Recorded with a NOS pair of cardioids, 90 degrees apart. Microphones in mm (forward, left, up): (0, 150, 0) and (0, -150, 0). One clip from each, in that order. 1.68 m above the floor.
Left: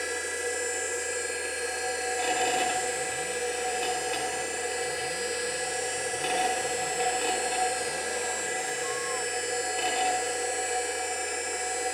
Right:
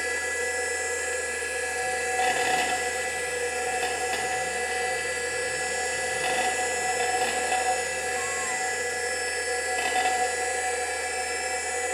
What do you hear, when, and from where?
0.0 s a machine running: 50° right, 1.7 m